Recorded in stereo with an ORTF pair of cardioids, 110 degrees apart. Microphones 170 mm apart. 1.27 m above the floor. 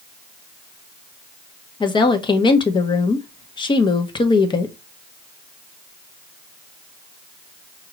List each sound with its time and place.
1.8 s a woman speaking: 25° left, 0.9 m